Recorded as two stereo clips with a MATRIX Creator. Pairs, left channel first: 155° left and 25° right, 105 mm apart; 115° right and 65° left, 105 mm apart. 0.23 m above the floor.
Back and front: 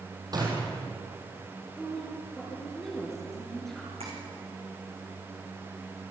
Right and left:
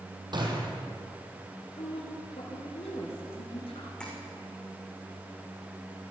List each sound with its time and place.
0.3 s a gunshot: 25° left, 4 m
1.8 s a woman speaking: 115° right, 4.5 m
4.0 s tapping: 30° right, 6.5 m